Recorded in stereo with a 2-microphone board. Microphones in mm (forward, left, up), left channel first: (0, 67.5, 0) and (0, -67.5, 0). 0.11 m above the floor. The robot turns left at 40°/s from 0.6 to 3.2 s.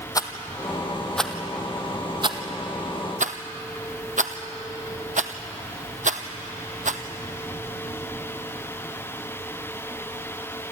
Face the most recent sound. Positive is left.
turn(degrees=-70)  # may be behind; listen again after turning